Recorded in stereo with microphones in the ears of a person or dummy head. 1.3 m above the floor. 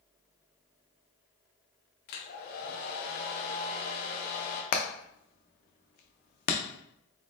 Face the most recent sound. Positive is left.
turn(degrees=50)  # may be behind; listen again after turning